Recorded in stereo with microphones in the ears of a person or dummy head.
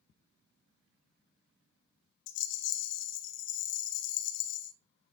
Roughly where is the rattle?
Left.